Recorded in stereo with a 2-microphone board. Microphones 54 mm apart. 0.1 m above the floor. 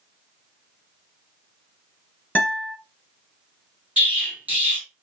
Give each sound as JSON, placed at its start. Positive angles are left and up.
{"t": 2.4, "sound": "a guitar", "side_deg": 25, "distance_m": 0.9}
{"t": 4.0, "sound": "an explosion", "side_deg": -25, "distance_m": 2.0}